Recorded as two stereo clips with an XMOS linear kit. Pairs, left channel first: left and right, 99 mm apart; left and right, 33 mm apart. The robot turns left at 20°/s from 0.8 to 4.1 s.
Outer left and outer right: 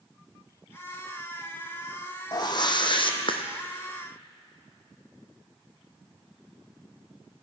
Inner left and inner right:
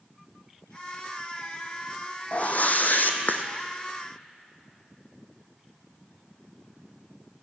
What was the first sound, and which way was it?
A whoosh, 45° left (ahead or behind).